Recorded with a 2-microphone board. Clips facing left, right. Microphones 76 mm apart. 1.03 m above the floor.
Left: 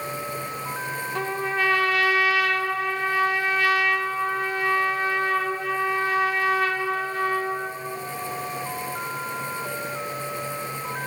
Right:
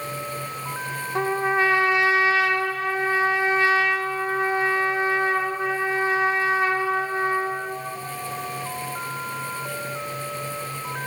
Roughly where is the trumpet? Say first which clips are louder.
Right 5 dB; right.